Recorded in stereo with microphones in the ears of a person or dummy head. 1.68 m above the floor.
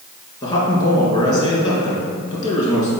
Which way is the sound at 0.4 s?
30° left (ahead or behind).